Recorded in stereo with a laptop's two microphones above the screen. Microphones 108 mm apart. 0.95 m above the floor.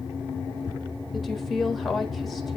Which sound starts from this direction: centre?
A woman speaking, at 1.1 s.